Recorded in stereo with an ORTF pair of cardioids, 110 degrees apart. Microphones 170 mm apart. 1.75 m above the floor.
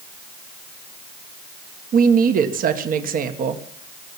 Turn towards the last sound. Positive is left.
turn(degrees=-50)